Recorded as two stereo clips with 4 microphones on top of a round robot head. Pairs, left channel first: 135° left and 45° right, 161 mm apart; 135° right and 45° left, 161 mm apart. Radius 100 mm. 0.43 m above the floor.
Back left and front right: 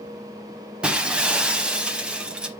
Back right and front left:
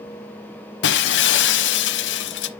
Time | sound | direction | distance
0.8 | breaking glass | 130° right | 0.7 m